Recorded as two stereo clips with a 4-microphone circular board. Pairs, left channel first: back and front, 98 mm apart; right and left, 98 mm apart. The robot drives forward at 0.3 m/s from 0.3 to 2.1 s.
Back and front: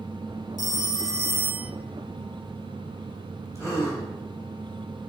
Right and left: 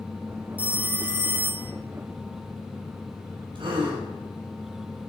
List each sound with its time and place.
0.6 s a phone ringing: 20° left, 0.7 m; by 1.7 s 50° left, 0.5 m
3.5 s a gasp: 125° left, 4 m